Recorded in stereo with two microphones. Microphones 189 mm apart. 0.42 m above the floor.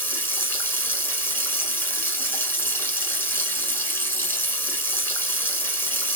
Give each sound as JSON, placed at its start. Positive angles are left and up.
{"t": 0.0, "sound": "running water", "side_deg": 10, "distance_m": 0.9}